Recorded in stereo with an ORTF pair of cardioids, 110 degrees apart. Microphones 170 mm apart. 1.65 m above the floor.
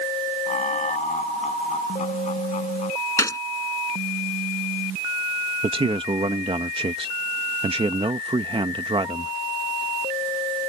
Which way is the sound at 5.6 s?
30° right.